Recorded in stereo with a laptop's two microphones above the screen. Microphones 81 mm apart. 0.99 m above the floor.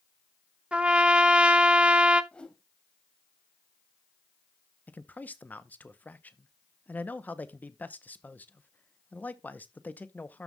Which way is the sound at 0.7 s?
15° right (ahead or behind).